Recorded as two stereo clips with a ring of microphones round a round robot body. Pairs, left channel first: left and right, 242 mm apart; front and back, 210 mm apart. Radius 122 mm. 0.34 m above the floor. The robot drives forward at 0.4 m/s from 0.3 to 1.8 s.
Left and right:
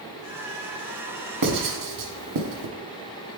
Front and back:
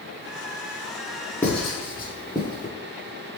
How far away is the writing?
About 0.7 m.